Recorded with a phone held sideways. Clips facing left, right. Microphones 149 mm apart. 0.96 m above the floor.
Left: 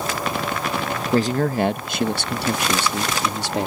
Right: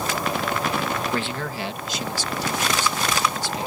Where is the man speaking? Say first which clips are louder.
Left 8 dB; 35° left (ahead or behind); by 3.7 s 65° left (ahead or behind).